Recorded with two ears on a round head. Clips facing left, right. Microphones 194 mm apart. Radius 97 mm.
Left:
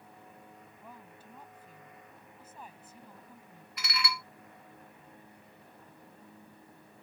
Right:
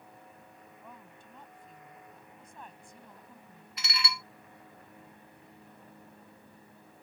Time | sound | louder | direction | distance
0.8 | a woman speaking | left 1 dB | 5° left (ahead or behind) | ?
3.8 | dishes clattering | left 2 dB | 25° right (ahead or behind) | ?